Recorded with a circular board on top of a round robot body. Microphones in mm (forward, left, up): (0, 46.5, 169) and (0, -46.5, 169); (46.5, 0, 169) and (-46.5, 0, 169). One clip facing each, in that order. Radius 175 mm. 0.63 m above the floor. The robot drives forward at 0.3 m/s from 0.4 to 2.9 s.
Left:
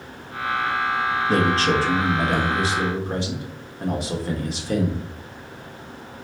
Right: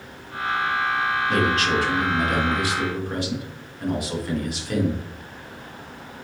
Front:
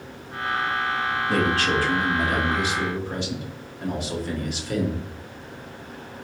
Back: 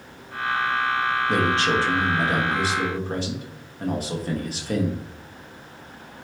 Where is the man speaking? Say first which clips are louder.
Left 3 dB, front 1 dB; 120° left, 1.3 m; by 5.0 s 140° left, 1.5 m.